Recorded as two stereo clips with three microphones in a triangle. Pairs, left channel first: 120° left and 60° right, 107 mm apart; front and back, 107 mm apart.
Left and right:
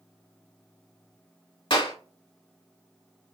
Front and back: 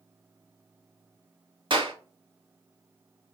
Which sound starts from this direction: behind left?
A clap, at 1.7 s.